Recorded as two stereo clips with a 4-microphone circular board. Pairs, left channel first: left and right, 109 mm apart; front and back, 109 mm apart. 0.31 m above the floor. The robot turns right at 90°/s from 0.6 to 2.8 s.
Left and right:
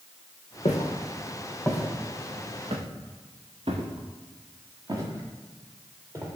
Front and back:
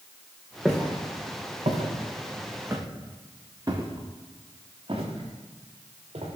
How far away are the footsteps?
About 2 m.